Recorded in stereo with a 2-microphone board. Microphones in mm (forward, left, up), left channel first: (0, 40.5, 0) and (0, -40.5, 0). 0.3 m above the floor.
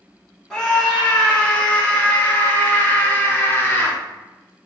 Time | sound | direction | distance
0.5 | a scream | 10° left (ahead or behind) | 1.9 m